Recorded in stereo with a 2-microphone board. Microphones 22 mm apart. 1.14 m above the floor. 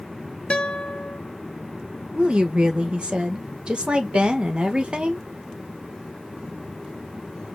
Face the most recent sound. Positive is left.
turn(degrees=-55)  # may be behind; listen again after turning